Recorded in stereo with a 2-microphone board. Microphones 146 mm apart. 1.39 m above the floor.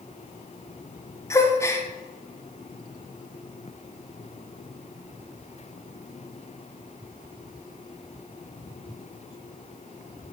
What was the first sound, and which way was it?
A gasp, 20° left (ahead or behind).